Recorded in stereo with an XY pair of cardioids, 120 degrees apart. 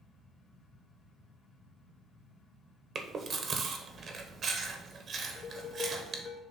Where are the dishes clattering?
55° left, 1.5 m.